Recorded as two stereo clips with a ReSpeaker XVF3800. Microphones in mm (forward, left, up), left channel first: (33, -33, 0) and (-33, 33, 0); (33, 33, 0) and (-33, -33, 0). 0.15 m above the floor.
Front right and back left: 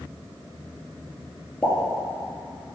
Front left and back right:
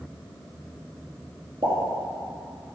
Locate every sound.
1.6 s a pop: 125° right, 2 m